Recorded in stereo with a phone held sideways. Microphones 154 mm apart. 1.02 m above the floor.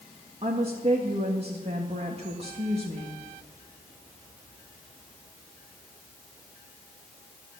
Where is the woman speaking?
40° right (ahead or behind), 1.7 m.